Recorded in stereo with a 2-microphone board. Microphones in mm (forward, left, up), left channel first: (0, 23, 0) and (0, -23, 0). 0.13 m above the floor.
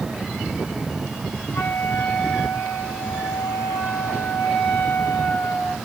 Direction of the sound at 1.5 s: 80° left.